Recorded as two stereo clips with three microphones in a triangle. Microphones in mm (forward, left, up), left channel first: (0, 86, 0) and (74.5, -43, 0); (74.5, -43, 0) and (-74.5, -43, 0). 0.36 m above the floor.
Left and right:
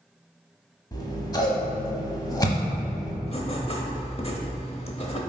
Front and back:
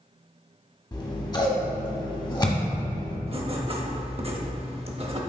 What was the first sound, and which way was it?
Scissors, 55° left.